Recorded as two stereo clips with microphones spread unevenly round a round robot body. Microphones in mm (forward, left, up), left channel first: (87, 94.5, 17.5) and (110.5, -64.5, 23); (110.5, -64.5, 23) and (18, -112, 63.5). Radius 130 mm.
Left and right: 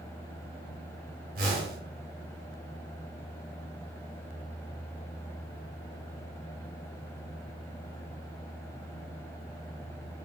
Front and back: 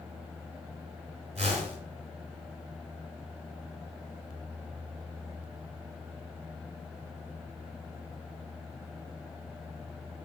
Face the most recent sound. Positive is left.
turn(degrees=-135)